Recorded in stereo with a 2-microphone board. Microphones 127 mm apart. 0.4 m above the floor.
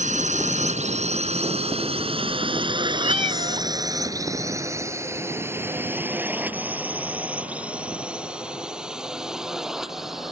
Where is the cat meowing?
55° right (ahead or behind).